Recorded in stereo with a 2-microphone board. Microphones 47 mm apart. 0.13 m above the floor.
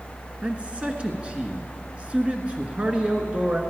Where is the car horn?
I don't hear a car horn.